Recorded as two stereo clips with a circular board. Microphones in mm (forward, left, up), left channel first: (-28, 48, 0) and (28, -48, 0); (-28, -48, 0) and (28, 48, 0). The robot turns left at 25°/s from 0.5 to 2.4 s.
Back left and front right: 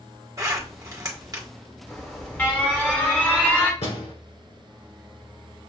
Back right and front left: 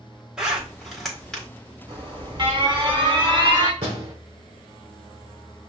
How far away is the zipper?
About 1.6 m.